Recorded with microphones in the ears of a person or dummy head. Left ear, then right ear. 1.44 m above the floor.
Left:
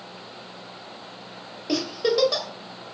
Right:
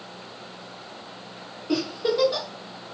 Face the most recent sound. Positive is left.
turn(degrees=80)